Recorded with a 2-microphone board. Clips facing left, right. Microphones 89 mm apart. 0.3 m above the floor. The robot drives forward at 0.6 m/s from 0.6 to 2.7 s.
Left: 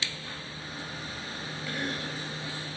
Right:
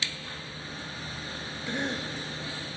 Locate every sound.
1.7 s a cough: 25° right (ahead or behind), 1.4 m; by 2.2 s 30° right (ahead or behind), 1.3 m